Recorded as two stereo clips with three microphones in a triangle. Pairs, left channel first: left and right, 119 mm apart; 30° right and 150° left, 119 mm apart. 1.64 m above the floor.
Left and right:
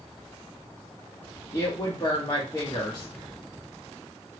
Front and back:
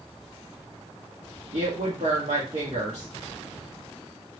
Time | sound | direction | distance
1.5 | a woman speaking | 140° left | 1.0 m